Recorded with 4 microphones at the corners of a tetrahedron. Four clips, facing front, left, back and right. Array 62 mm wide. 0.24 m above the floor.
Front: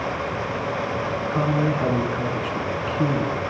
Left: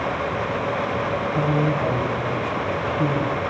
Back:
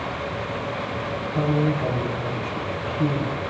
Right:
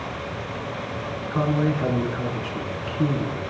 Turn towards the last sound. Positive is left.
turn(degrees=-35)